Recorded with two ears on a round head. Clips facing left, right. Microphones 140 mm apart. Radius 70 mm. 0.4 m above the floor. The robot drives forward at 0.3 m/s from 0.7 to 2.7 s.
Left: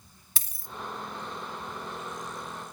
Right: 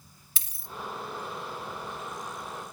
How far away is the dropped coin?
About 0.7 m.